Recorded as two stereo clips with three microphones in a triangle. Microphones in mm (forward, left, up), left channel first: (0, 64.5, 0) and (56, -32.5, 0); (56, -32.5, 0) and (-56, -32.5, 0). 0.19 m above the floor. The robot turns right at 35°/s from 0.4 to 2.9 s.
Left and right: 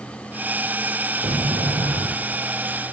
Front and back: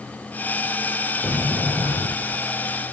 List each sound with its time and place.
1.2 s a sliding door: 70° right, 7 m; by 2.4 s 30° right, 7 m